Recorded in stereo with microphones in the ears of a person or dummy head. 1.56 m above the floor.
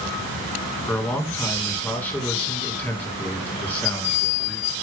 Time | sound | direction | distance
0.9 | a man speaking | 5° left (ahead or behind) | 2.5 m